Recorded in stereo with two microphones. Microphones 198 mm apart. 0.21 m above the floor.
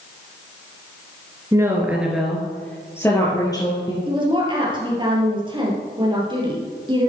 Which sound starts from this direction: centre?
A woman speaking, at 1.5 s.